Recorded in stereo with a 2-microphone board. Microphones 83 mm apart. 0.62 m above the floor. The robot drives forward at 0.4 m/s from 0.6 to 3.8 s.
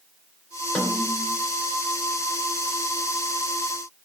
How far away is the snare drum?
About 4 m.